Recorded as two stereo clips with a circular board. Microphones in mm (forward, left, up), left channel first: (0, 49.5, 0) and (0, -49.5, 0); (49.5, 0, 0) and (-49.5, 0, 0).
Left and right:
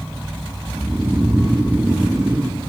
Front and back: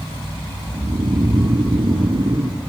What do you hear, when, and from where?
0.7 s snoring: 165° right, 1.7 m